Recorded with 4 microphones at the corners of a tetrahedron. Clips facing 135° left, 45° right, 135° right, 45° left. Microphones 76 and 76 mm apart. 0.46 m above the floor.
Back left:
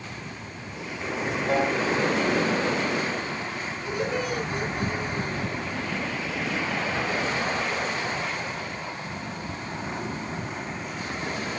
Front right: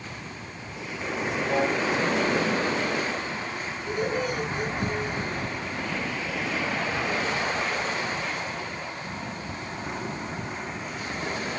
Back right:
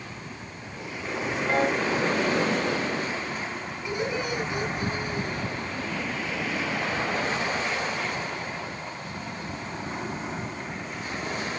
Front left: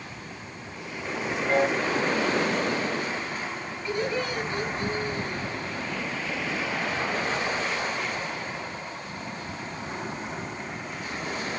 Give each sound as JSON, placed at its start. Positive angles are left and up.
{"t": 1.5, "sound": "a piano", "azimuth_deg": 125, "distance_m": 9.5}
{"t": 3.9, "sound": "laughter", "azimuth_deg": 145, "distance_m": 6.5}